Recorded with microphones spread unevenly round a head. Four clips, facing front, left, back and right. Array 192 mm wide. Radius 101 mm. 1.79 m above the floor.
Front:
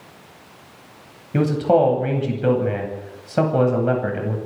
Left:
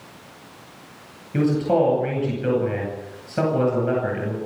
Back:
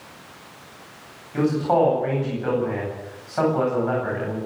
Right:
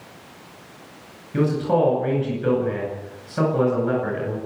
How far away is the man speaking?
About 9.5 m.